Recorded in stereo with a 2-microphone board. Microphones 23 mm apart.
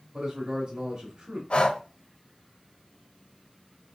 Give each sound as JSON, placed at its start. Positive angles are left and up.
{"t": 0.1, "sound": "a man speaking", "side_deg": -60, "distance_m": 1.4}
{"t": 1.5, "sound": "breathing", "side_deg": 50, "distance_m": 0.6}